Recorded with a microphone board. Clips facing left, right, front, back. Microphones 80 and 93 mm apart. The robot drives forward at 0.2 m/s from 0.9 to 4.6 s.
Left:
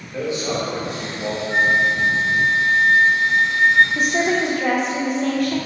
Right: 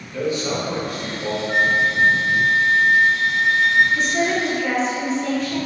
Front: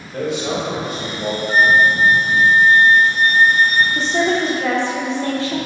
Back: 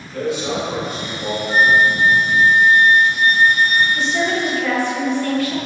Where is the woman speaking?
50° left, 0.7 m; by 5.6 s 65° left, 0.6 m.